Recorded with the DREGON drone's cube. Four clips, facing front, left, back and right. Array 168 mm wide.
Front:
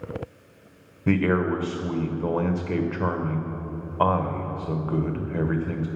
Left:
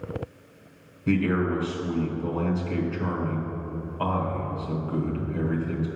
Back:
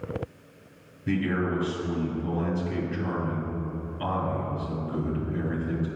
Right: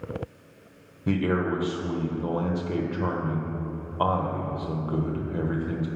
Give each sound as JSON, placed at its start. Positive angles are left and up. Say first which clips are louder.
{"t": 1.1, "sound": "a man speaking", "louder": "left 1 dB, front 5 dB", "azimuth_deg": -20, "distance_m": 1.1}